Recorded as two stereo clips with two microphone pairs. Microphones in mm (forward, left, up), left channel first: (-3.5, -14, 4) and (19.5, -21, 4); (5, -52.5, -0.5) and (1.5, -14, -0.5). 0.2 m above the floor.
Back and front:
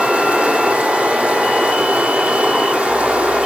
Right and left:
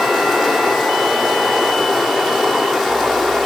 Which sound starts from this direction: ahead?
Running water, at 0.0 s.